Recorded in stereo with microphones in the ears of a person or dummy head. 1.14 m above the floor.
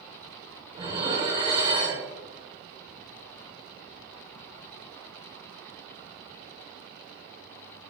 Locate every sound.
0.8 s dishes clattering: 30° right (ahead or behind), 2.5 m